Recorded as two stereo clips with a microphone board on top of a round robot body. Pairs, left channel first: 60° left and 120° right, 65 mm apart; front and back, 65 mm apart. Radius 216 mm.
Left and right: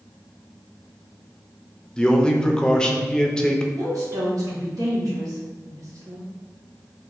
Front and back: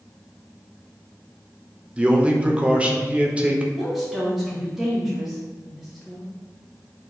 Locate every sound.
2.0 s a man speaking: 130° left, 0.8 m
3.8 s a woman speaking: 95° right, 1.5 m